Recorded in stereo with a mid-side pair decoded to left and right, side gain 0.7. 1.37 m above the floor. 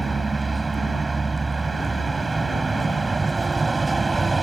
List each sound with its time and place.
0.0 s a vehicle: 20° right